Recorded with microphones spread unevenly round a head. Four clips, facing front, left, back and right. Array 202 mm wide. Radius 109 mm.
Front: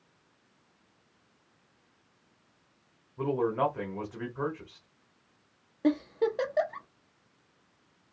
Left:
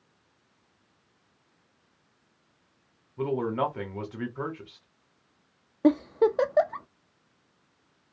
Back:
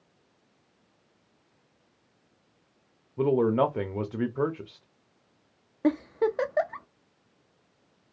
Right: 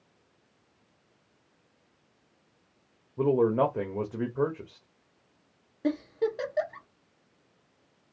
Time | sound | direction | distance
3.2 | a man speaking | 145° right | 0.9 m
5.8 | a giggle | 85° left | 0.5 m